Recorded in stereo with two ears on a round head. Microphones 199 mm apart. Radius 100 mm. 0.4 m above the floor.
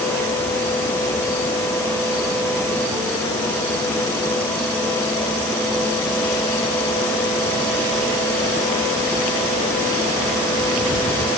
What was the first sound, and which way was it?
Only background noise.